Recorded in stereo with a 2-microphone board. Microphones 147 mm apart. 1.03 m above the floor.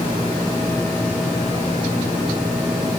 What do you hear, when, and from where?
Only background noise.